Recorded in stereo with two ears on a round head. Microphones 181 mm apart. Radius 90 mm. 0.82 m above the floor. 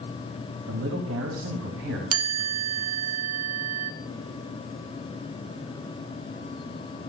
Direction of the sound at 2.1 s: 80° right.